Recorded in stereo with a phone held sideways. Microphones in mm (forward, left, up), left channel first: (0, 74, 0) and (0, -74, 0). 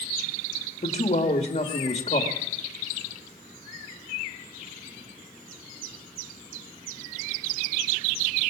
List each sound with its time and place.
0.8 s a man speaking: 50° left (ahead or behind), 1.6 m